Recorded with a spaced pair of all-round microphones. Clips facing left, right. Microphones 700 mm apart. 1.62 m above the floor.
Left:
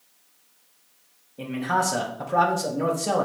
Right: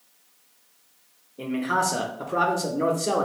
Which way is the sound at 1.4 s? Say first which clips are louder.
Right 1 dB; 25° left (ahead or behind).